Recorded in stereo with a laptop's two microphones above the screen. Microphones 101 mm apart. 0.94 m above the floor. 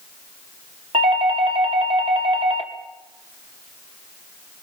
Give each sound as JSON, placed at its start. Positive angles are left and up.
{"t": 0.9, "sound": "a doorbell", "side_deg": -70, "distance_m": 2.5}